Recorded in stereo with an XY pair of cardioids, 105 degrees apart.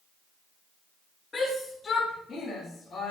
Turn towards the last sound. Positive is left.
turn(degrees=60)